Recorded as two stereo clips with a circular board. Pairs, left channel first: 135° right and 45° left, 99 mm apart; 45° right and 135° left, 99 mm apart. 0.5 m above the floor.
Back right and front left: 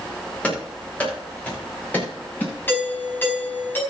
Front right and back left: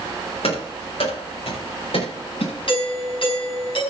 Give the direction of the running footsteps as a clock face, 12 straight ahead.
2 o'clock.